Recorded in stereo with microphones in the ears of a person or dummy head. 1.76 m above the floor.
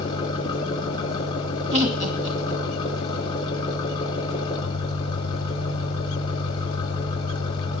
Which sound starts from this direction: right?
Laughter, at 1.7 s.